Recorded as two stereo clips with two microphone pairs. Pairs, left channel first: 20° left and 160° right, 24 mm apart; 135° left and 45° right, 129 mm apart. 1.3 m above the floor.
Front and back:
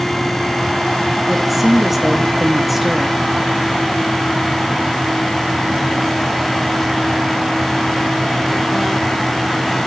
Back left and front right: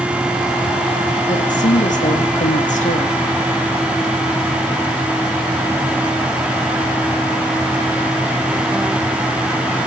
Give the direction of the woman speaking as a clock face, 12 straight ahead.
8 o'clock.